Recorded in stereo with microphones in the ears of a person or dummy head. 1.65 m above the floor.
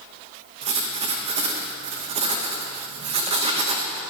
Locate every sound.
0.6 s writing: 30° right (ahead or behind), 0.9 m